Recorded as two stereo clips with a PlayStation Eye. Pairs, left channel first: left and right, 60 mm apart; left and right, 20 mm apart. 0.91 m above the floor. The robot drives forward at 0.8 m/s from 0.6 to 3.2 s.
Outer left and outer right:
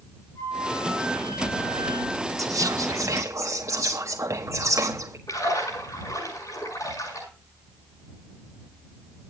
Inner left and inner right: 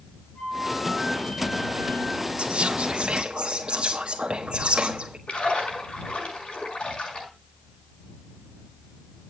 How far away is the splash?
About 6 m.